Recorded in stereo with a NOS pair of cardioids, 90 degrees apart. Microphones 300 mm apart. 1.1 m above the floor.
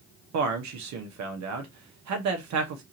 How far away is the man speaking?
About 1.2 m.